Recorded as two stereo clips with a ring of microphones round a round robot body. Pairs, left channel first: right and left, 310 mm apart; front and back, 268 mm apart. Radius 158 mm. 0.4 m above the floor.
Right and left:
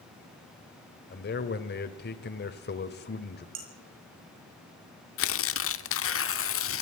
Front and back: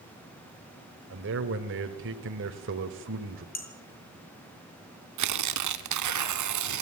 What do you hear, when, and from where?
1.1 s a man speaking: 140° right, 1.8 m
3.5 s dishes clattering: 55° left, 6 m
5.2 s tearing paper: 140° right, 0.6 m